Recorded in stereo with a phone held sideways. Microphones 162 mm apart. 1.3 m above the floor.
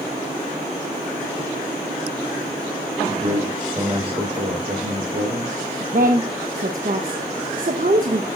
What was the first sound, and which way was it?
A man speaking, 25° right (ahead or behind).